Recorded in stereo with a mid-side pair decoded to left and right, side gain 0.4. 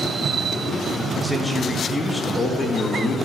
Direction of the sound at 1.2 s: 10° right.